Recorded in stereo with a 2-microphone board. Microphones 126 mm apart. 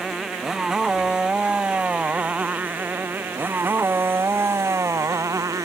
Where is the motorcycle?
5° right (ahead or behind); by 5.7 s 25° right (ahead or behind).